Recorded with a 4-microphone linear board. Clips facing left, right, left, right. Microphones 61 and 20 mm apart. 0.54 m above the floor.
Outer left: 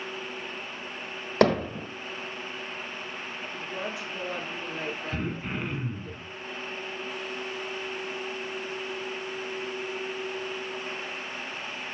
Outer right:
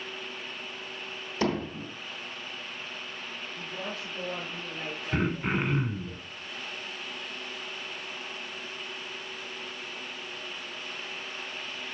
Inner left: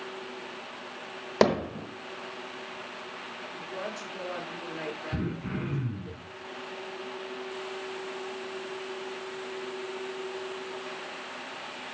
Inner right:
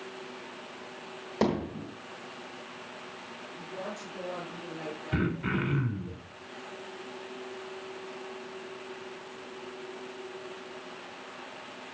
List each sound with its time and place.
1.4 s hammering: 60° left (ahead or behind), 1.6 m
3.5 s a woman speaking: 75° left (ahead or behind), 7.5 m
5.1 s throat clearing: 35° right (ahead or behind), 3 m